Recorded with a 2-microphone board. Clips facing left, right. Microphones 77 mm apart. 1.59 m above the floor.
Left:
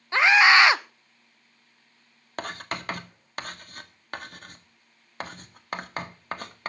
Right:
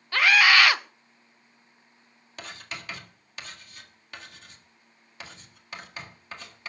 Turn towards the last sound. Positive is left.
turn(degrees=50)  # may be behind; listen again after turning